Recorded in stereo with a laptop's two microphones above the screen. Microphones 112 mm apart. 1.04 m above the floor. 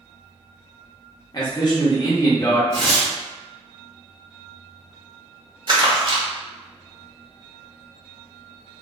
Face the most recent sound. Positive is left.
turn(degrees=-45)  # may be behind; listen again after turning